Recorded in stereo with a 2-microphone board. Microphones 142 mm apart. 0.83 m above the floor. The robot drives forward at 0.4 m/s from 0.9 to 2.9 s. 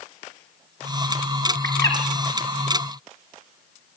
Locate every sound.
1.6 s a bird: 25° left (ahead or behind), 3 m